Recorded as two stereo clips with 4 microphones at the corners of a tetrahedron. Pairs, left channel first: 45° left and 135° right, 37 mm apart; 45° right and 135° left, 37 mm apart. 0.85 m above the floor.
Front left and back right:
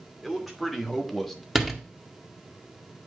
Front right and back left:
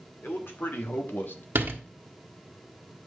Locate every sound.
0.2 s a man speaking: 45° right, 2 m; by 1.4 s 40° right, 1.0 m
1.6 s a door slam: 145° left, 1.2 m